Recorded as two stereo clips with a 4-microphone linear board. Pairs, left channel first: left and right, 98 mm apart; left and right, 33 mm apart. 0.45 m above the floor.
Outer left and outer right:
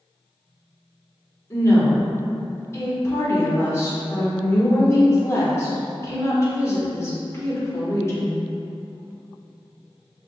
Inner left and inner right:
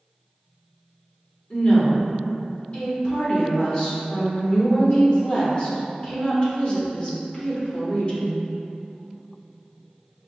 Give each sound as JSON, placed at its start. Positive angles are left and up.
{"t": 1.5, "sound": "a woman speaking", "side_deg": 30, "distance_m": 1.3}